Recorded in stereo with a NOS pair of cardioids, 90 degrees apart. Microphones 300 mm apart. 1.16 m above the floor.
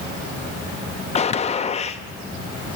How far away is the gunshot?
About 0.6 m.